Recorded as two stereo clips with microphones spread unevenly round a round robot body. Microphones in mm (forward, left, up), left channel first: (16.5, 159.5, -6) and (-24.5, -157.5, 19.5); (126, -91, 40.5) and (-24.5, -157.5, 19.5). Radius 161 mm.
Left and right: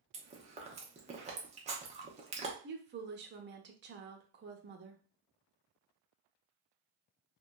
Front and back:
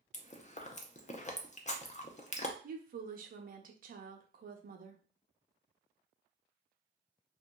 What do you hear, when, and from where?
0.1 s chewing: 25° right, 0.7 m
2.6 s a woman speaking: 155° right, 0.7 m